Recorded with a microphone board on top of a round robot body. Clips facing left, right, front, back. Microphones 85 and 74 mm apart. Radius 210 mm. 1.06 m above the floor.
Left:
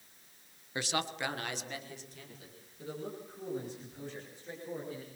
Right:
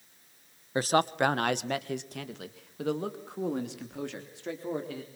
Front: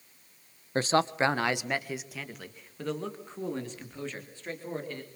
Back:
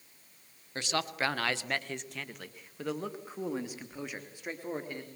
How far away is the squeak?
No squeak in this recording.